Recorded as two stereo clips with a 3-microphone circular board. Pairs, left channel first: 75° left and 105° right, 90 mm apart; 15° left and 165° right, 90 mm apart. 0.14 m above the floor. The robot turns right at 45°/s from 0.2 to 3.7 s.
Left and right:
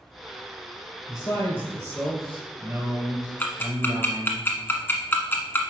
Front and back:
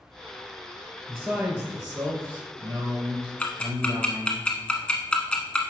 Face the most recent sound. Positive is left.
turn(degrees=75)